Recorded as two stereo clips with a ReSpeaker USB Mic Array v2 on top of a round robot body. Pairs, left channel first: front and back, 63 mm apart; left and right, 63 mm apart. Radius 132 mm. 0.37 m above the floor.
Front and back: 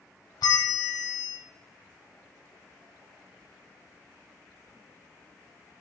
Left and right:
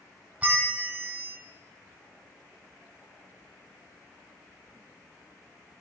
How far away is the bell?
About 0.8 m.